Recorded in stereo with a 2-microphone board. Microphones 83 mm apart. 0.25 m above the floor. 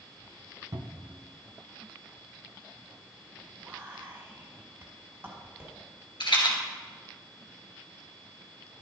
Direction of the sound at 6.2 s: 80° left.